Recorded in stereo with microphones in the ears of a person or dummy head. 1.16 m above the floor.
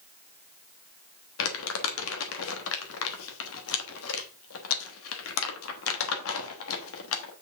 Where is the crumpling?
85° left, 1.3 m.